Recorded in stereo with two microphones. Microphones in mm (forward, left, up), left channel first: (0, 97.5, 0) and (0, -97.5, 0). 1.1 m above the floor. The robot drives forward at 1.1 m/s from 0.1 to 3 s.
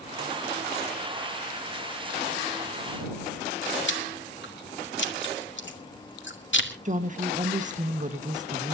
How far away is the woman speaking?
About 1.4 m.